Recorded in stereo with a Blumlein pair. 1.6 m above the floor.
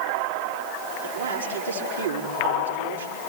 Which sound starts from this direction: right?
A man speaking, at 1.0 s.